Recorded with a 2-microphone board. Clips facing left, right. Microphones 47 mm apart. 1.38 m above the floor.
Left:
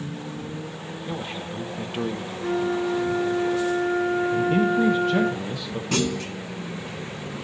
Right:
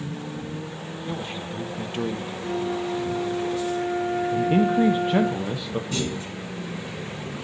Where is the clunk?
75° left (ahead or behind), 1.3 m.